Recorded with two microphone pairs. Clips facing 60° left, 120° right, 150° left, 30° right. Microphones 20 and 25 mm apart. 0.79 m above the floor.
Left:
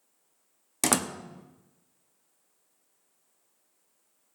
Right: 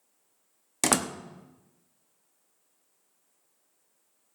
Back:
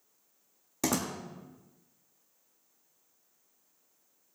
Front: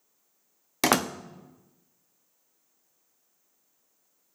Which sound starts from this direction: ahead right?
A door slam, at 0.8 s.